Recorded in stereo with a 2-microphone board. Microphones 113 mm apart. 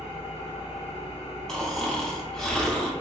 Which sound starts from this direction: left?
An engine running, at 0.0 s.